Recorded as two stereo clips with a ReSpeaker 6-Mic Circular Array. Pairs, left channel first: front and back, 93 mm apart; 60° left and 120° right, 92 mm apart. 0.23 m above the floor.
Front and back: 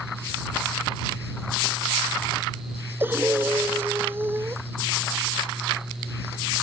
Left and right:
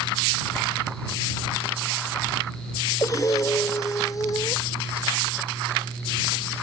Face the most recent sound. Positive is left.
turn(degrees=115)